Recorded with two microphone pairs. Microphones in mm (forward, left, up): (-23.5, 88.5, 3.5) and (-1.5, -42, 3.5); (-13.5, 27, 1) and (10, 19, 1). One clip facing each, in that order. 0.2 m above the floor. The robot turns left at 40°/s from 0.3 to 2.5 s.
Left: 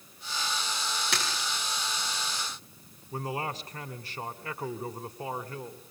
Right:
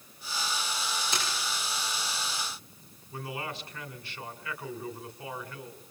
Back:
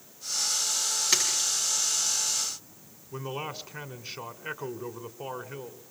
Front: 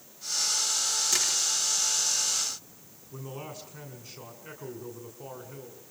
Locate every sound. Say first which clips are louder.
1.1 s a splash: even, back 3 dB; 120° left, 9 m; by 1.5 s 105° left, 9 m
3.1 s a man speaking: left 4 dB, back 5 dB; 130° left, 2 m